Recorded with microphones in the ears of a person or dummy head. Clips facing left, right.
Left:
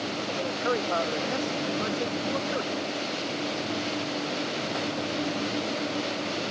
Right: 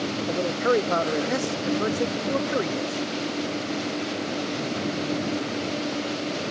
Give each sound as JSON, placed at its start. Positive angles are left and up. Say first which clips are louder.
{"t": 0.3, "sound": "a man speaking", "louder": "right 7 dB", "side_deg": -50}